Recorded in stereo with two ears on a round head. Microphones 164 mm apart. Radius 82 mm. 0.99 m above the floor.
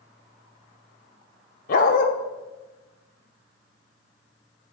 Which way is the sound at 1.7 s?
45° left (ahead or behind).